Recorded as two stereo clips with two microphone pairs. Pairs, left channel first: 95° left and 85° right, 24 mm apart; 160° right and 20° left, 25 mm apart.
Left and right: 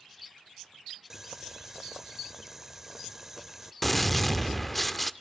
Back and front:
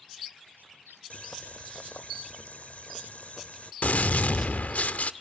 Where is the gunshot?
Straight behind, 0.5 m.